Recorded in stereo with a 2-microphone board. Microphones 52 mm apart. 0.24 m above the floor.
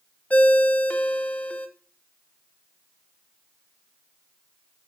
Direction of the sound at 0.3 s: 30° left (ahead or behind).